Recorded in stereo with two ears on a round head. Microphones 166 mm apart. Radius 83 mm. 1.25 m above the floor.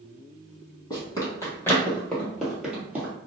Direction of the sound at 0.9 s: 25° left (ahead or behind).